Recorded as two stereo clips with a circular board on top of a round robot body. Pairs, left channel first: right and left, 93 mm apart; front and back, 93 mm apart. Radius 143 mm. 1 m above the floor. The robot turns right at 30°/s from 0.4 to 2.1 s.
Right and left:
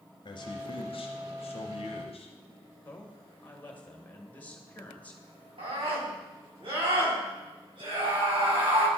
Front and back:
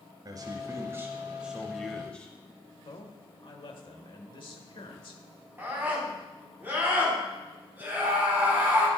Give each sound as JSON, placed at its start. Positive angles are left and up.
{"t": 0.2, "sound": "a man speaking", "azimuth_deg": -120, "distance_m": 0.7}
{"t": 2.9, "sound": "a man speaking", "azimuth_deg": -20, "distance_m": 1.3}
{"t": 5.6, "sound": "a scream", "azimuth_deg": 110, "distance_m": 4.0}